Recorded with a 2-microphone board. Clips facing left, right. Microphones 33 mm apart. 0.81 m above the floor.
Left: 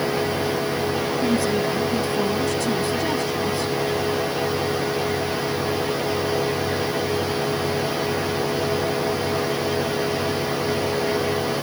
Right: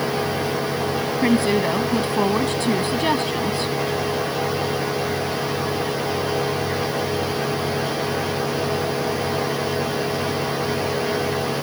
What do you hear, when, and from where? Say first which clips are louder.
1.2 s a woman speaking: right 4 dB; 50° right (ahead or behind)